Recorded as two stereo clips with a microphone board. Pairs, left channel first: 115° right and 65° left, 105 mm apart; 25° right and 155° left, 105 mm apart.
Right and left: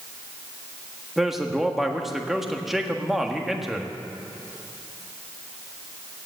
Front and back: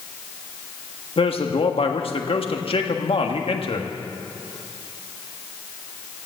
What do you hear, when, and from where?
1.2 s a man speaking: 20° right, 1.5 m